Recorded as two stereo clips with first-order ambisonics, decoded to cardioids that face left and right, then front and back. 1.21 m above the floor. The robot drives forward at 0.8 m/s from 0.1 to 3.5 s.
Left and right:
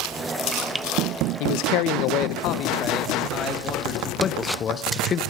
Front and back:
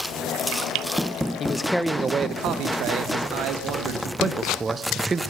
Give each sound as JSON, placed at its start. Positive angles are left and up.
{"t": 1.4, "sound": "a man speaking", "azimuth_deg": 70, "distance_m": 0.8}
{"t": 4.2, "sound": "a man speaking", "azimuth_deg": 120, "distance_m": 0.7}